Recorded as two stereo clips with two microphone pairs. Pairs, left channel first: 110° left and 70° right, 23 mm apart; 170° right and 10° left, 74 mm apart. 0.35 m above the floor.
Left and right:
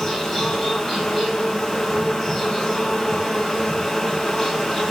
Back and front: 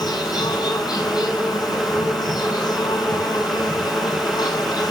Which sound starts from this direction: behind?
An insect, at 0.0 s.